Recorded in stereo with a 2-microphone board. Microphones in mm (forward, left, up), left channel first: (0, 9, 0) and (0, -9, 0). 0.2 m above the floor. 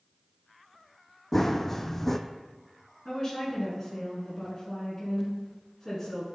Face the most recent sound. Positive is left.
turn(degrees=25)  # may be behind; listen again after turning